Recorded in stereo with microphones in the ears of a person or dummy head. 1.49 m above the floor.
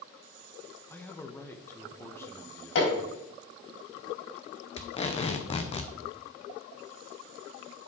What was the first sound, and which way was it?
A man speaking, 10° left (ahead or behind).